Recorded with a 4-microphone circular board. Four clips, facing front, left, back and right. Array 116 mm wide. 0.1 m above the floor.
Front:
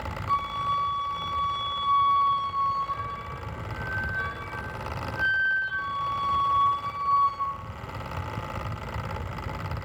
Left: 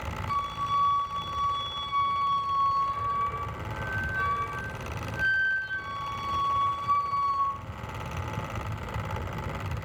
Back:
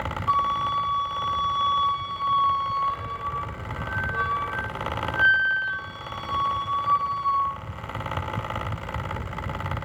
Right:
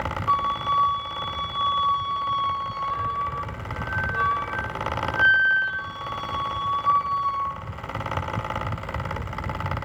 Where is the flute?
140° right, 4 m.